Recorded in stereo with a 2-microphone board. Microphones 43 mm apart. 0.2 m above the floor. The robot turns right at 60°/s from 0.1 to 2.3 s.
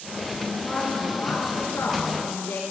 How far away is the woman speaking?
About 2.5 m.